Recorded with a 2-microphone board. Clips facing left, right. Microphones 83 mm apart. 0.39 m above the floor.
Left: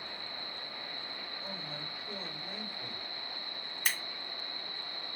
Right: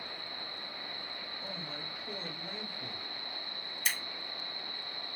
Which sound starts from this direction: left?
Scissors, at 3.9 s.